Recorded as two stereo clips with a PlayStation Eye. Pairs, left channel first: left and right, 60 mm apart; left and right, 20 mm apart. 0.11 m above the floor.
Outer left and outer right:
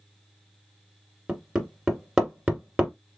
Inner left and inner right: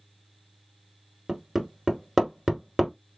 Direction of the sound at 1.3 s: 10° right (ahead or behind).